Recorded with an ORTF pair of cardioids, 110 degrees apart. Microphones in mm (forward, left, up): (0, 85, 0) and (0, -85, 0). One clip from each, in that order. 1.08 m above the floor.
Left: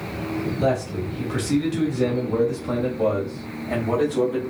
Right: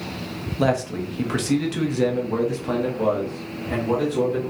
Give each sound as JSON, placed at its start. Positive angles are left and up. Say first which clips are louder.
{"t": 0.6, "sound": "a man speaking", "louder": "right 2 dB", "azimuth_deg": -65, "distance_m": 1.2}